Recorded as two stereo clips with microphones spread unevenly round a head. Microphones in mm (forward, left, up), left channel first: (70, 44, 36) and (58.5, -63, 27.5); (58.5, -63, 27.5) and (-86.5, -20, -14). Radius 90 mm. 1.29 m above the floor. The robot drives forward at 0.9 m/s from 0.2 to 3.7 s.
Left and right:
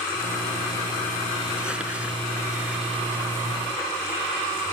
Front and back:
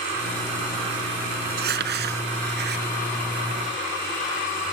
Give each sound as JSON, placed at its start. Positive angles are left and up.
{"t": 1.4, "sound": "crumpling", "azimuth_deg": 175}